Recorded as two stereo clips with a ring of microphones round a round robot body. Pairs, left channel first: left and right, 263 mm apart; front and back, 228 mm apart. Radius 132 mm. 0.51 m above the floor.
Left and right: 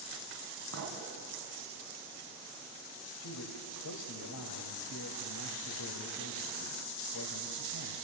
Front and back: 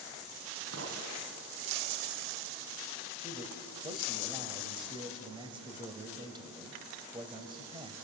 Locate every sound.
0.7 s a clink: 130° right, 3 m
3.2 s a man speaking: 110° left, 2.5 m